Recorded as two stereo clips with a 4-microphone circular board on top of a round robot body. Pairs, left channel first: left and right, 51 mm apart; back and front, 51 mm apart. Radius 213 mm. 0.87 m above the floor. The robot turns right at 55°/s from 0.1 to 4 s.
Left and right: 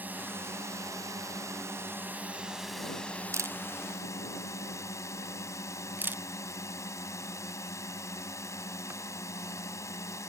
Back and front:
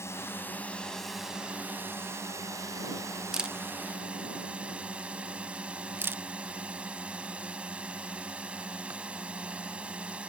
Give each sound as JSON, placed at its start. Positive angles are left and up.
{"t": 0.0, "sound": "a drone", "azimuth_deg": -145}
{"t": 3.3, "sound": "a camera shutter", "azimuth_deg": -80}